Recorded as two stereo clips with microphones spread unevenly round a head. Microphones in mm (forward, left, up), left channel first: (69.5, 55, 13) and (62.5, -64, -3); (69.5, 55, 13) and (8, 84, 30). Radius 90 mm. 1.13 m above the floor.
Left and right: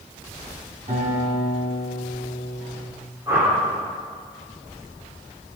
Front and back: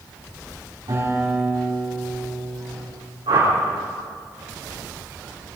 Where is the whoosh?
170° right, 4.5 m.